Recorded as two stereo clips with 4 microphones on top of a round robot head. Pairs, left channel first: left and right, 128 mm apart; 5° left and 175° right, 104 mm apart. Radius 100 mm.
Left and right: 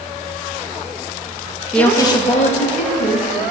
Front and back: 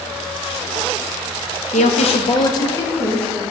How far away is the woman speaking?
About 1.1 m.